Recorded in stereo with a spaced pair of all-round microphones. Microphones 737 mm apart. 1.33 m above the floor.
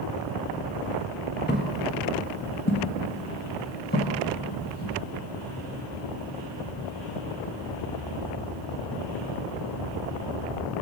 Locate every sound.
1.5 s footsteps: 15° left (ahead or behind), 1.3 m; by 4.9 s 10° left (ahead or behind), 3 m